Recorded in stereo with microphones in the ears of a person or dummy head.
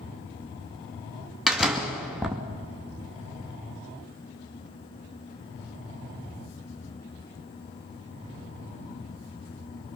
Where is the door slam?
Centre (ahead or behind), 2 m.